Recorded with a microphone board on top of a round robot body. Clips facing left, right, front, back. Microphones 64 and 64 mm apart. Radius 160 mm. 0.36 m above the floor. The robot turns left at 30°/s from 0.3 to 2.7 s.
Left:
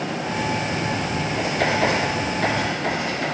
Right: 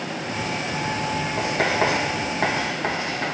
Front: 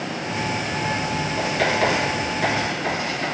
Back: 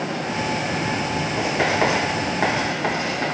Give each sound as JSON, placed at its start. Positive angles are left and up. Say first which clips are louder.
{"t": 1.4, "sound": "writing", "louder": "left 1 dB, back 1 dB", "azimuth_deg": -105, "distance_m": 2.5}